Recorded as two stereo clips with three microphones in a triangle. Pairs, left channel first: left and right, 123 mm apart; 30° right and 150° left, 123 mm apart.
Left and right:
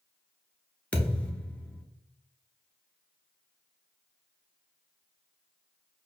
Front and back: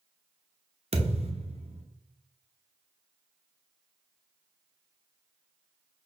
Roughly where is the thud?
Behind.